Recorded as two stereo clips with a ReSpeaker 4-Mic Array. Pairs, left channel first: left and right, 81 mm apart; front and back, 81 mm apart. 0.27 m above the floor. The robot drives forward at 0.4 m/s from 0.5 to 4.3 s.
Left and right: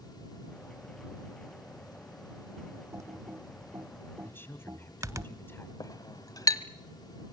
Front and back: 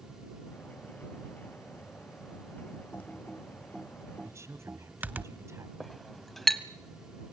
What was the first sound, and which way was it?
Typing on a keyboard, 60° right.